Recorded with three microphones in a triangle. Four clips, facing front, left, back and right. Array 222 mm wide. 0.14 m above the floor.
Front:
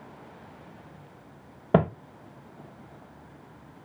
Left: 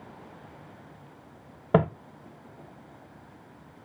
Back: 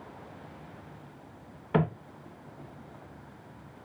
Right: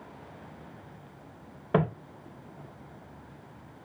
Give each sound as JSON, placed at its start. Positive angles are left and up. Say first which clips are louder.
{"t": 1.7, "sound": "footsteps", "louder": "left 4 dB, front 5 dB", "azimuth_deg": 30, "distance_m": 1.1}